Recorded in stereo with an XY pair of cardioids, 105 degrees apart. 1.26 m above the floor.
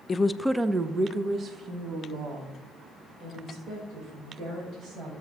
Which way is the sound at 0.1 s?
40° left.